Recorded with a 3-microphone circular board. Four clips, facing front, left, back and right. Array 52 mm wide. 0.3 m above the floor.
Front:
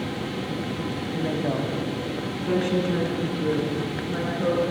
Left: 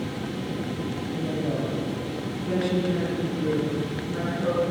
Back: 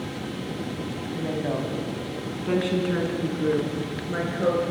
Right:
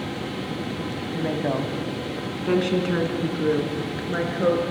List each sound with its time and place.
1.1 s a woman speaking: 80° right, 2.0 m; by 4.6 s 110° right, 5 m